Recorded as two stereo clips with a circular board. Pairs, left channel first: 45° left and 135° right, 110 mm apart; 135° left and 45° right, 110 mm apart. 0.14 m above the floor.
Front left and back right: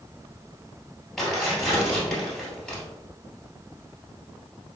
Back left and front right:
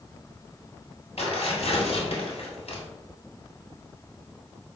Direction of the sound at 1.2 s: 130° left.